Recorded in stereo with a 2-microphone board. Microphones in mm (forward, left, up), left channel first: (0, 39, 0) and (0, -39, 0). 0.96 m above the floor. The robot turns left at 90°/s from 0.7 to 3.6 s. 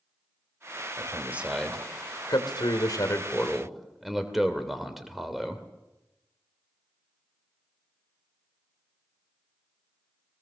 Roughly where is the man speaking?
Right.